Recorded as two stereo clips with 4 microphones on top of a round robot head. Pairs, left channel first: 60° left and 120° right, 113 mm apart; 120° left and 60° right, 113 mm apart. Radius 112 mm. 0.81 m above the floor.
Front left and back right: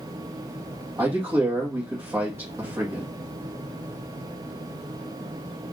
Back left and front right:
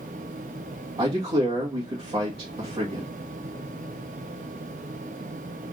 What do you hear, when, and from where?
1.0 s a man speaking: 65° right, 1.4 m